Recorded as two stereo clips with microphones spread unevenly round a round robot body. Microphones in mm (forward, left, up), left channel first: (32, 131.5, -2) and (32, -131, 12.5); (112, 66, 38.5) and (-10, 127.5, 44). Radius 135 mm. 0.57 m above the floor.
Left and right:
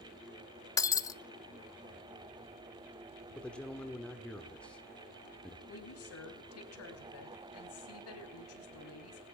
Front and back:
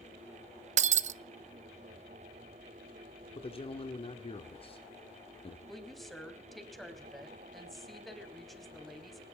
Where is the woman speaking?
60° left, 4 m.